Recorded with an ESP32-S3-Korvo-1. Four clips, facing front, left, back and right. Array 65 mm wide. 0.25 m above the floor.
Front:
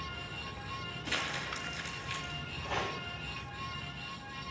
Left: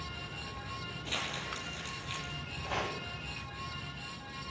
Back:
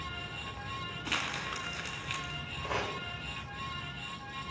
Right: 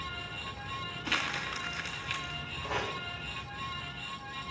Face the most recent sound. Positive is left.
turn(degrees=-160)